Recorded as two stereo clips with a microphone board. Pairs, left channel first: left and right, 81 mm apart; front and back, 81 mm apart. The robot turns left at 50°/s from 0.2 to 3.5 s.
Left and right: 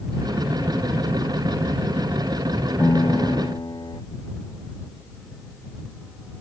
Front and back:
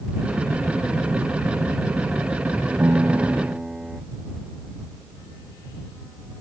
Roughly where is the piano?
Behind left.